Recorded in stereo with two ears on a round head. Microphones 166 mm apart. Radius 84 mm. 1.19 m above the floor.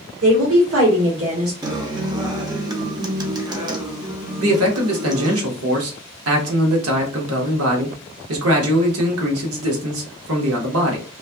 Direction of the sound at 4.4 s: 90° right.